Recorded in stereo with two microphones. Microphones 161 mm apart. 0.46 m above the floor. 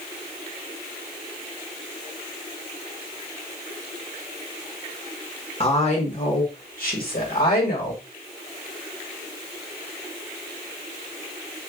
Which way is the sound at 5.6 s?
35° left (ahead or behind).